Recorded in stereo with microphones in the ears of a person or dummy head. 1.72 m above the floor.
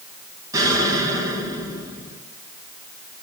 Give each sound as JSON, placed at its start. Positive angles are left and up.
{"t": 0.5, "sound": "an explosion", "side_deg": -25, "distance_m": 1.5}